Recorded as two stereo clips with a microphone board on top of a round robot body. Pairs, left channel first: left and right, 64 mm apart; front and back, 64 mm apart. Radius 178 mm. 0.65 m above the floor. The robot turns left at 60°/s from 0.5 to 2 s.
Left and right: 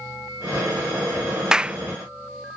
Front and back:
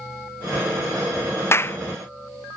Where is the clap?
15° right; by 1.8 s 35° right.